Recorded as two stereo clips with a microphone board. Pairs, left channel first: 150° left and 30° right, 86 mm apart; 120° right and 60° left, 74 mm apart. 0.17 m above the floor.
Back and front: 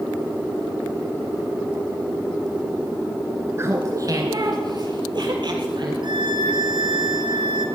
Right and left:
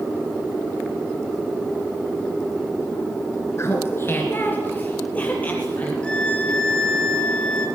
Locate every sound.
3.6 s laughter: 80° right, 2 m; by 5.9 s 50° right, 5 m
6.0 s a violin: 45° right, 4 m